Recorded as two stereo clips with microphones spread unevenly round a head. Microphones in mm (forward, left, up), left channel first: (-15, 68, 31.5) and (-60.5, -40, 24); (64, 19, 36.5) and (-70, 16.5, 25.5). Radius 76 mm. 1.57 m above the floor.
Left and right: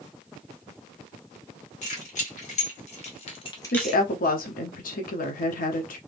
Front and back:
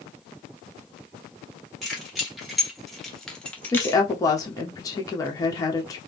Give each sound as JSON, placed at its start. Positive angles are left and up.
{"t": 1.8, "sound": "keys jangling", "azimuth_deg": 90, "distance_m": 2.0}
{"t": 3.7, "sound": "a woman speaking", "azimuth_deg": 70, "distance_m": 0.8}